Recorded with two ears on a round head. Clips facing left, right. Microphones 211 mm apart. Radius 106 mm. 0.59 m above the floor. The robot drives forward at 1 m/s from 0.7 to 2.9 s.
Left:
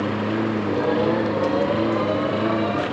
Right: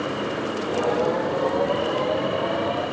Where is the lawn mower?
45° left (ahead or behind).